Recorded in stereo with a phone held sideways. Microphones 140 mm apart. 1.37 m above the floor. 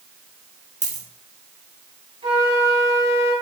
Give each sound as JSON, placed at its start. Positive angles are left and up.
{"t": 0.8, "sound": "a dropped coin", "side_deg": -65, "distance_m": 3.0}
{"t": 2.2, "sound": "a flute", "side_deg": -45, "distance_m": 5.0}